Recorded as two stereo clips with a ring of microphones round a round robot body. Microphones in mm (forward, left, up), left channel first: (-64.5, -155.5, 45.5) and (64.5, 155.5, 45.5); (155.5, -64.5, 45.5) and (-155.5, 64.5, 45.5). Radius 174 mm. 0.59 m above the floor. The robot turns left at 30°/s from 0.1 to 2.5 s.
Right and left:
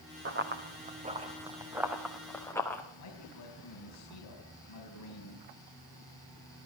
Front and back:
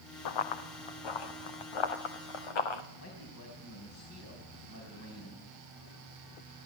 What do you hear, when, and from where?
0.2 s running footsteps: 10° left, 2.5 m; by 2.8 s 25° right, 3 m
3.0 s a man speaking: 70° right, 5 m